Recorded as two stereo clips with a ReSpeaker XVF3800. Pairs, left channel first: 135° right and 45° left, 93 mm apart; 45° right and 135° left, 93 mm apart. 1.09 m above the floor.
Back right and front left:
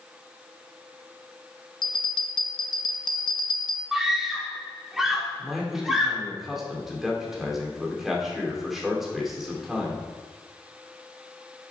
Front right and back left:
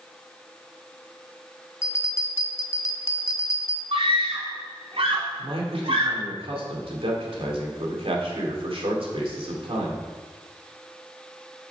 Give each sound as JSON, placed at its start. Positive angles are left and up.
{"t": 1.8, "sound": "a bell", "azimuth_deg": -105, "distance_m": 0.7}
{"t": 3.9, "sound": "a scream", "azimuth_deg": 130, "distance_m": 2.0}
{"t": 5.4, "sound": "a man speaking", "azimuth_deg": 130, "distance_m": 2.5}